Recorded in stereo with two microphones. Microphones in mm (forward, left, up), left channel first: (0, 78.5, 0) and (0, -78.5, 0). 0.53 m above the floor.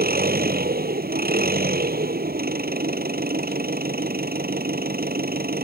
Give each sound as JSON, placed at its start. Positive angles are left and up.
{"t": 0.0, "sound": "an engine running", "side_deg": -75}